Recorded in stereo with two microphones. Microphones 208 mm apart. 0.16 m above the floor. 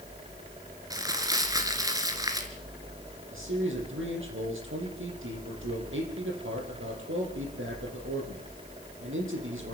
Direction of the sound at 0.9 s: 15° right (ahead or behind).